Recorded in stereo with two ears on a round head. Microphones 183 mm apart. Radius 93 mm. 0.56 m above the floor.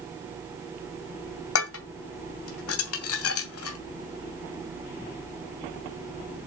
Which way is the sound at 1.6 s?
80° left.